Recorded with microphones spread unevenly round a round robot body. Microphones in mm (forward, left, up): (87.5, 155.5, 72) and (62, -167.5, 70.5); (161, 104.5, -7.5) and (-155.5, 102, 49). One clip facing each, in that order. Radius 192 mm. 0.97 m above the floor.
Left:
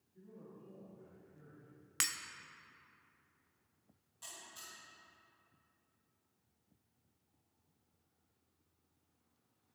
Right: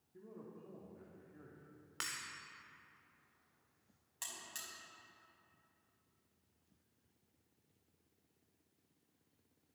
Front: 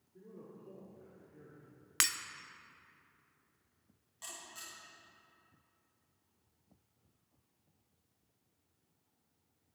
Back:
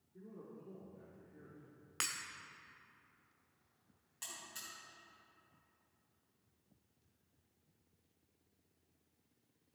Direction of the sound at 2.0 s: 55° left.